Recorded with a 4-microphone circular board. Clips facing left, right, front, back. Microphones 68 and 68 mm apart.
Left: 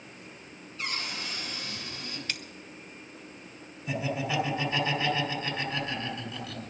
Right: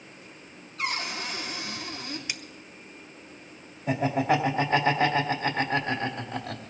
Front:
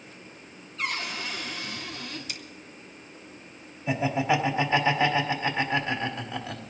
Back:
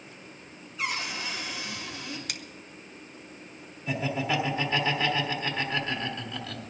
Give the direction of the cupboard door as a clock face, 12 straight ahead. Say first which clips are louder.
Right 5 dB, even; 3 o'clock.